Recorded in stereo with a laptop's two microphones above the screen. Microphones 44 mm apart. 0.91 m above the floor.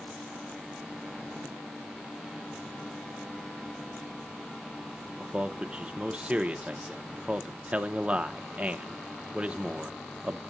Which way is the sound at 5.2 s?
25° right (ahead or behind).